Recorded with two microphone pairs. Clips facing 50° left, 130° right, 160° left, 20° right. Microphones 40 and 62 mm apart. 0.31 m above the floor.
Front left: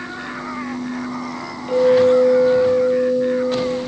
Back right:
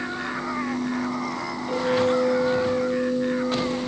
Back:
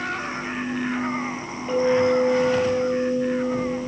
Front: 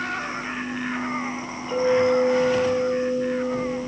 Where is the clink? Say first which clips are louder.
Front left 9 dB, even; 120° left, 5.5 m.